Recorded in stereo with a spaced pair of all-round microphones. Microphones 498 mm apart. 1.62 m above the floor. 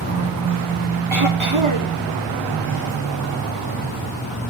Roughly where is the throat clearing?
Right.